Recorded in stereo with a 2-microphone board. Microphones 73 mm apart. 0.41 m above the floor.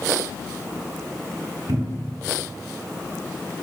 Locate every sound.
1.7 s a cupboard door: 70° right (ahead or behind), 1.0 m